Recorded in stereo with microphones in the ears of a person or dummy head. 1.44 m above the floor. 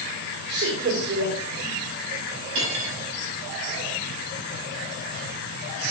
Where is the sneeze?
No sneeze in this recording.